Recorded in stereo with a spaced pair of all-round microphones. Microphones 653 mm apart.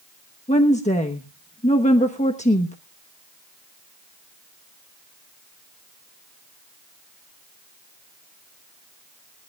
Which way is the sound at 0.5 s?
10° left (ahead or behind).